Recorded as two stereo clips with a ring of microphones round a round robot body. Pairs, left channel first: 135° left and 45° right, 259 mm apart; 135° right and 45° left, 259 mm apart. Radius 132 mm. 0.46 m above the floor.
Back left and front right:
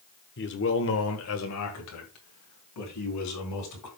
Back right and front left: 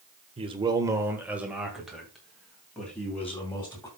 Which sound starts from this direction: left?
A man speaking, at 0.4 s.